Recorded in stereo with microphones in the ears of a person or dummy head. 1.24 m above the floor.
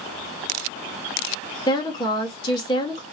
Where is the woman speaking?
25° left (ahead or behind), 1.8 m.